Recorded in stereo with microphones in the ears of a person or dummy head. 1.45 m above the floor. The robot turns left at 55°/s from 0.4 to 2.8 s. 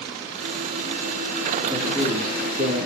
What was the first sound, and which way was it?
A man speaking, 10° right.